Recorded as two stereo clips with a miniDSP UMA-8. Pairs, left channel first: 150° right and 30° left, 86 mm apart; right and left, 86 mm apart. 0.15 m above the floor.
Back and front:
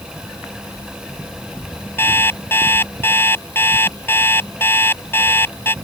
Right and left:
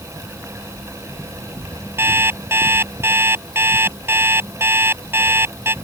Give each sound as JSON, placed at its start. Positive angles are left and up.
{"t": 2.0, "sound": "an alarm clock", "azimuth_deg": 150}